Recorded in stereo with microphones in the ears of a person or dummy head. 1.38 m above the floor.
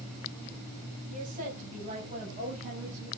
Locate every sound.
1.1 s a woman speaking: 45° right (ahead or behind), 8.5 m; by 3.1 s 40° right (ahead or behind), 6.5 m